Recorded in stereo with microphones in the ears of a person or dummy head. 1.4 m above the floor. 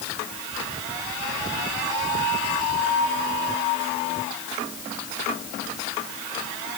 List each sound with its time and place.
Only background noise.